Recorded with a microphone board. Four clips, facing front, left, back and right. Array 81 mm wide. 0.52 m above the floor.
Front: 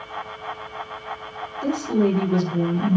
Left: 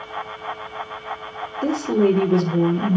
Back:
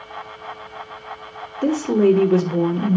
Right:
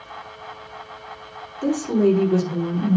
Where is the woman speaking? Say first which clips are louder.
Even, back 5 dB; 160° left, 1.5 m.